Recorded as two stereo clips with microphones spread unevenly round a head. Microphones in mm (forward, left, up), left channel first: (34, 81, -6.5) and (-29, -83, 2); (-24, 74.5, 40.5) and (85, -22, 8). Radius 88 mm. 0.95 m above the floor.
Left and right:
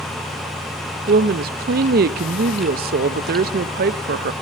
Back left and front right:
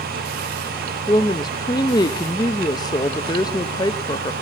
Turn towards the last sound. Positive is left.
turn(degrees=-150)